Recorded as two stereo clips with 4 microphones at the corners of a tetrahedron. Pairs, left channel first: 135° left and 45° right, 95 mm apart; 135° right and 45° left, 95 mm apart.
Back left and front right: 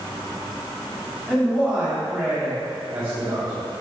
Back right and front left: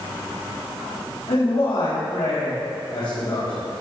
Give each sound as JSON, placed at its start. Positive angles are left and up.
{"t": 1.3, "sound": "a man speaking", "azimuth_deg": -125, "distance_m": 3.0}